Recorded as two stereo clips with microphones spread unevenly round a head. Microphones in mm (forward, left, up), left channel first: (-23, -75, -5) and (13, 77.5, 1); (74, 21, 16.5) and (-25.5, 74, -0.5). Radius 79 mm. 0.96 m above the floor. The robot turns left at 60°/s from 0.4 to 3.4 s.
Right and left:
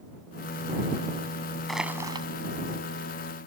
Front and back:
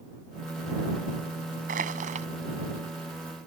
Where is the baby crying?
I don't hear a baby crying.